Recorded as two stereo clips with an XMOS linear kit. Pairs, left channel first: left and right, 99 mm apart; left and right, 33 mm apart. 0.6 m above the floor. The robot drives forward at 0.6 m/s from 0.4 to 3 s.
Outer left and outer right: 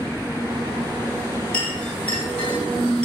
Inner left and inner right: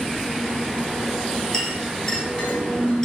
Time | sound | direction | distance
1.5 | a clink | 15° left (ahead or behind) | 4.5 m